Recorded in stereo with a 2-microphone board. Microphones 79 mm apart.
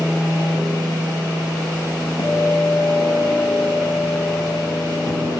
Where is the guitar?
70° left (ahead or behind), 1.4 m.